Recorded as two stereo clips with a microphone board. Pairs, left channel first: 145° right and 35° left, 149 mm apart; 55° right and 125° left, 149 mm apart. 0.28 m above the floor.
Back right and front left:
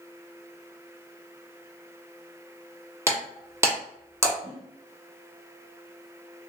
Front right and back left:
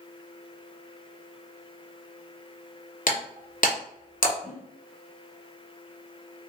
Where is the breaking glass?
35° right, 1.3 m.